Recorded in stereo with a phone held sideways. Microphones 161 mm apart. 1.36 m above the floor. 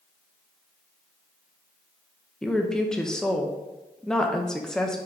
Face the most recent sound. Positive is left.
turn(degrees=5)  # may be behind; listen again after turning